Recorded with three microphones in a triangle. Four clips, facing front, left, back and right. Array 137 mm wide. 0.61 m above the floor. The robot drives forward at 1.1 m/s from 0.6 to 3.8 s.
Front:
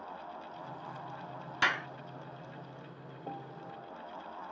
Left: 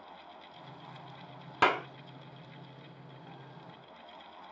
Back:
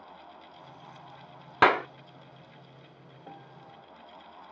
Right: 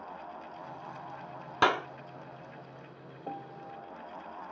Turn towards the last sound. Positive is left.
turn(degrees=-75)